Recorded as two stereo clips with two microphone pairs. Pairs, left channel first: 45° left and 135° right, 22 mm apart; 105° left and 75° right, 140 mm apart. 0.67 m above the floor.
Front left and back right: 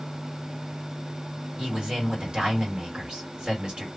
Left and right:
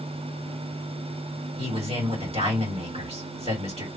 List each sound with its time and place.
1.6 s a man speaking: 105° right, 2.5 m